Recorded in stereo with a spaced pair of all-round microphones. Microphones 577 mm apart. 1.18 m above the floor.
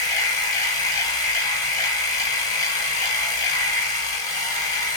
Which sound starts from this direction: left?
A machine running, at 0.0 s.